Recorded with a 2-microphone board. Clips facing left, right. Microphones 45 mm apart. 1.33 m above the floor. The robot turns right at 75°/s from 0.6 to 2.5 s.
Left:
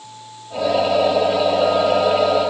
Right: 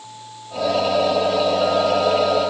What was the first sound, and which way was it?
Only background noise.